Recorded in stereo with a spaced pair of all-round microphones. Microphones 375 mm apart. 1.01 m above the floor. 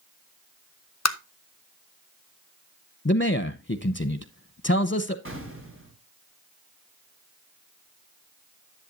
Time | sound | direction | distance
1.1 | tapping | 45° left (ahead or behind) | 1.0 m
3.0 | a man speaking | 30° left (ahead or behind) | 0.7 m
5.2 | an explosion | 35° right (ahead or behind) | 3.5 m